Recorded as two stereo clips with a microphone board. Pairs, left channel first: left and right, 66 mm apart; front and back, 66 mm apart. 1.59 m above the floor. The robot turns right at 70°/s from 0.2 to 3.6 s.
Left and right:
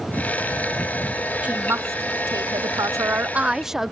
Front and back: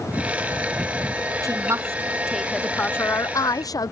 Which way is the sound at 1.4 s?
160° right.